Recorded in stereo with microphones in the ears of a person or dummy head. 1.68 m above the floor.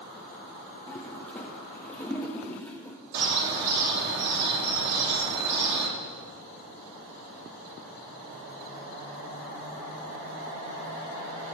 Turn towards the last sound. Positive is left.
turn(degrees=-55)  # may be behind; listen again after turning